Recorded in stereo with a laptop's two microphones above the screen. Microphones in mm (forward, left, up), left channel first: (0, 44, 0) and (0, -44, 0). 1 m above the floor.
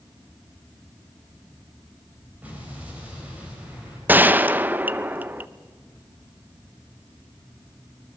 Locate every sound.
2.4 s an explosion: 20° right (ahead or behind), 5.5 m
4.1 s a gunshot: 20° right (ahead or behind), 0.5 m